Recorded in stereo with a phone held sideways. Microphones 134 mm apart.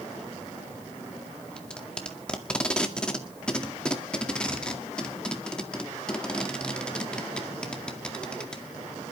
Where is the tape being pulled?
10° left (ahead or behind), 2.0 m.